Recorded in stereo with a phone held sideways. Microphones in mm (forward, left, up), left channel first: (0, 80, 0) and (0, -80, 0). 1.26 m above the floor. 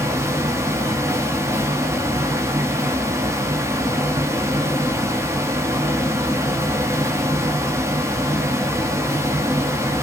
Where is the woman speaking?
No woman speaking in this recording.